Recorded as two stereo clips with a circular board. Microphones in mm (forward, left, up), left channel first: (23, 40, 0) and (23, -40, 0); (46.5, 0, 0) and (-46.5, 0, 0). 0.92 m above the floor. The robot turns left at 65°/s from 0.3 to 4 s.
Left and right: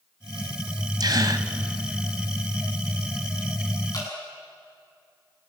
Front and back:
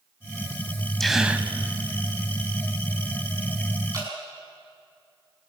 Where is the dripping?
130° left, 6 m; by 4.1 s 125° left, 6 m.